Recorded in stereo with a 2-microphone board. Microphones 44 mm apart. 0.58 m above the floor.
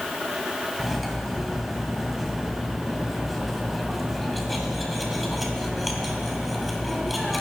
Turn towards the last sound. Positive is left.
turn(degrees=0)  # may be behind; listen again after turning